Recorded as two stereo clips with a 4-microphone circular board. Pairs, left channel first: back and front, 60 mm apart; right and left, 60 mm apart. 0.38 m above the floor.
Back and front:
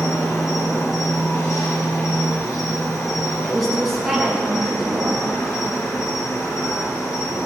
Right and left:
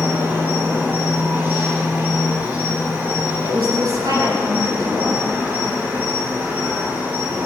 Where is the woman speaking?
90° left, 7.5 m.